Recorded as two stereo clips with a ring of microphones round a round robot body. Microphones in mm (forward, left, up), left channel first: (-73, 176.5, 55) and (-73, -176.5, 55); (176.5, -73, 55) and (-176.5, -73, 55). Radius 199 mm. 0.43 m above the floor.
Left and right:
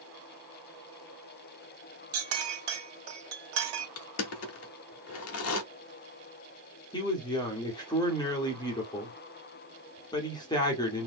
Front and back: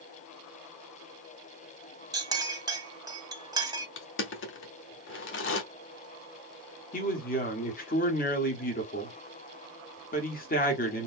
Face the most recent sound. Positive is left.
turn(degrees=25)